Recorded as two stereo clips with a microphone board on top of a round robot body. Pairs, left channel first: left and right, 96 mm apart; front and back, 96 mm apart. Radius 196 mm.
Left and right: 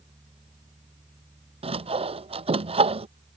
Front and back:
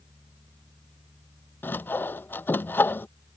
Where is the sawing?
70° right.